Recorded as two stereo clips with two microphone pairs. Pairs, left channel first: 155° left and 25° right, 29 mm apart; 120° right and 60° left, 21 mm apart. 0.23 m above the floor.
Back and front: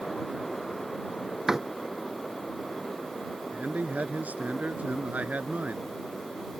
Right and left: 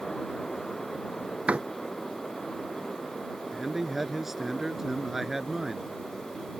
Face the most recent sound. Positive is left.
turn(degrees=-15)